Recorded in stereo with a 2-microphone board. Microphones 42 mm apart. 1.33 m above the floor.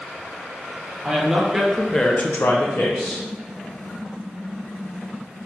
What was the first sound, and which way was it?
A woman speaking, 15° right (ahead or behind).